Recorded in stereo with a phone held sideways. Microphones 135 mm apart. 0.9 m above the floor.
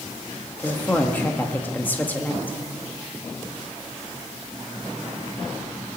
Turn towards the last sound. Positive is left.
turn(degrees=15)  # may be behind; listen again after turning